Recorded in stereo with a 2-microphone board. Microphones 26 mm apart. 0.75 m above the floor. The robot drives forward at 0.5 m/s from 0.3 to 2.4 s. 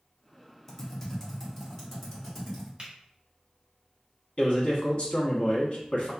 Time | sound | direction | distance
0.7 | typing on a keyboard | 15° left (ahead or behind) | 0.7 m
2.8 | a finger snap | 35° right (ahead or behind) | 1.2 m
4.4 | a man speaking | 45° left (ahead or behind) | 1.0 m